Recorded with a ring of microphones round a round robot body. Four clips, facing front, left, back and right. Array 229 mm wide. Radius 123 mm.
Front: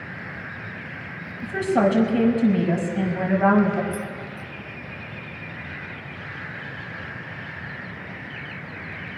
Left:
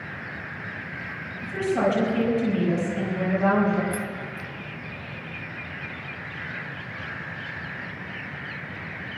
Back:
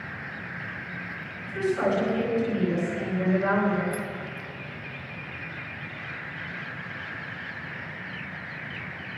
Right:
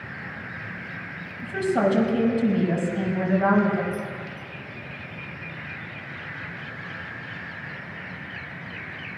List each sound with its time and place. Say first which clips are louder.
1.4 s a woman speaking: right 1 dB, front 5 dB; 15° right, 6 m
3.9 s keys jangling: left 1 dB, front 1 dB; 75° left, 1.1 m